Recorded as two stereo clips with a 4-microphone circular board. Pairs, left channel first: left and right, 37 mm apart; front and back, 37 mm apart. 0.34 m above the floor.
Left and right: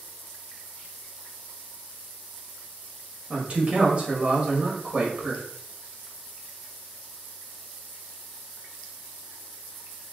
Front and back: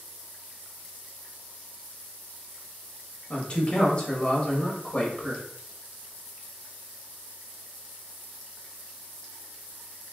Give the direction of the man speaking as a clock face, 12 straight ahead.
2 o'clock.